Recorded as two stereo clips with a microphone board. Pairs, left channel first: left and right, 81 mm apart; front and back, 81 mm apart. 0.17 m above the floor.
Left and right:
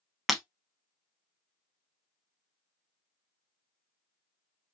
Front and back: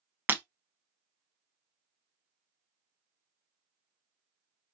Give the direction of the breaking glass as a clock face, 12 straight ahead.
6 o'clock.